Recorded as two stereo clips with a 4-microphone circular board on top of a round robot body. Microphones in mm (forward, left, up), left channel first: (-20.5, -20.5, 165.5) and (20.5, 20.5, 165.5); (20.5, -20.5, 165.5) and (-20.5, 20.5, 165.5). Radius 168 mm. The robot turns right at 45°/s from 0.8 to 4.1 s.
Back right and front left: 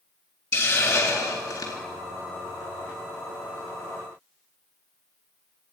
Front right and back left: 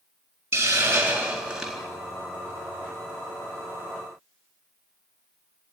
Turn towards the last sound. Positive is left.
turn(degrees=-30)